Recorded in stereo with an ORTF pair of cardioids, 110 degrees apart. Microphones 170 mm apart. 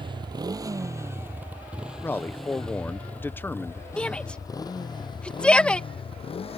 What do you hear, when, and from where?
0.0 s a motorcycle: 25° right; by 6.6 s 35° left
2.0 s a man speaking: 10° left
4.0 s a shout: 5° left